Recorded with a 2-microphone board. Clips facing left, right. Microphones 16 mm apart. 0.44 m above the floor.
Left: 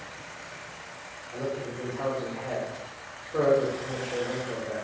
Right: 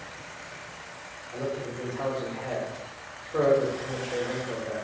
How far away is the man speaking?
About 0.8 m.